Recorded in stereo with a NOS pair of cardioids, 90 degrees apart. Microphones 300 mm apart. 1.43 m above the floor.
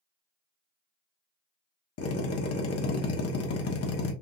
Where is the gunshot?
I don't hear a gunshot.